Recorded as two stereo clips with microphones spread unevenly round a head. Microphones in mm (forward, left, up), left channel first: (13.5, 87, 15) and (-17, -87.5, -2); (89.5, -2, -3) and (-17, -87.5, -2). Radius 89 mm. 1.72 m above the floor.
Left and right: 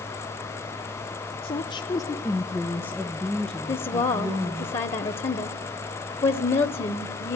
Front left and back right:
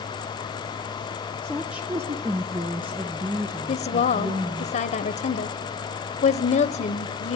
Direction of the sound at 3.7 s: 30° left.